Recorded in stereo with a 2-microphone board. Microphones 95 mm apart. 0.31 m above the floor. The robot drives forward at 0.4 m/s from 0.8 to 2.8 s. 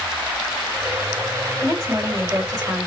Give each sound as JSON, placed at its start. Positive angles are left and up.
{"t": 1.6, "sound": "a woman speaking", "side_deg": -35, "distance_m": 1.9}